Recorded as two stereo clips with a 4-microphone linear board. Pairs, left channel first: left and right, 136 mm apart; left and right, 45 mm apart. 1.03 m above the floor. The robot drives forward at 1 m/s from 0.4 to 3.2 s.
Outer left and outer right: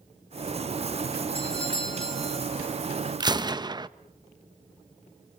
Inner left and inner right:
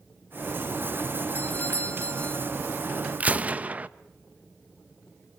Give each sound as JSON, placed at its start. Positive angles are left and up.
{"t": 1.4, "sound": "a doorbell", "side_deg": 40, "distance_m": 1.4}
{"t": 3.2, "sound": "a gunshot", "side_deg": -30, "distance_m": 0.8}